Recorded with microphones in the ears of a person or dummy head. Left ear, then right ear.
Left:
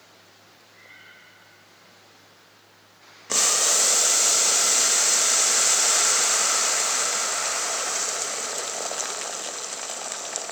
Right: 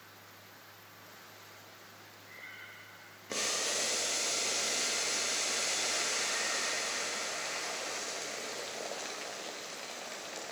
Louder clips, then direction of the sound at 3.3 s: Left 12 dB; 40° left (ahead or behind).